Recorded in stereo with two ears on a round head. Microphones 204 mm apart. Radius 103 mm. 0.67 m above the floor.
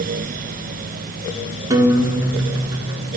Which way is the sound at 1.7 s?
15° right (ahead or behind).